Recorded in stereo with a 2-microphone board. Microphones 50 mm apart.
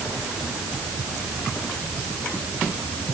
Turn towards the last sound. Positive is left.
No sound to turn to.